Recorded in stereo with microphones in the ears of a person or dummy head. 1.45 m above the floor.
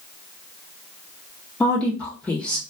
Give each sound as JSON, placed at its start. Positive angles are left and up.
{"t": 1.6, "sound": "a woman speaking", "side_deg": 15, "distance_m": 0.6}